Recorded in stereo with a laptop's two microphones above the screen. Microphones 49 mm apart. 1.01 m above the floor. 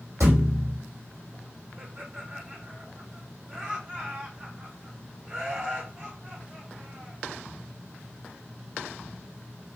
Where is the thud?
75° right (ahead or behind), 4.5 m.